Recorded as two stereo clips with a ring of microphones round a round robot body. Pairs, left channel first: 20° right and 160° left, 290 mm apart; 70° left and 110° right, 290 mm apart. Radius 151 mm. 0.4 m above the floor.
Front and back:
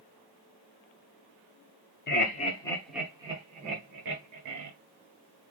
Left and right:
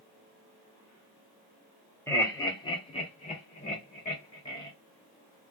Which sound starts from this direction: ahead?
Laughter, at 2.1 s.